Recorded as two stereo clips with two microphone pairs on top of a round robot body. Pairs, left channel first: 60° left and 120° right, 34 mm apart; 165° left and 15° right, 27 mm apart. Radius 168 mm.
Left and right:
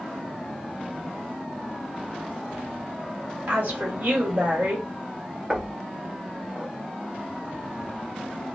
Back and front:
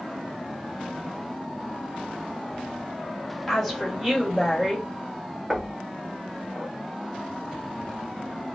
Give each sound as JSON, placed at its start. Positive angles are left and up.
{"t": 3.5, "sound": "a woman speaking", "azimuth_deg": -115, "distance_m": 2.0}
{"t": 5.5, "sound": "knocking", "azimuth_deg": -90, "distance_m": 1.1}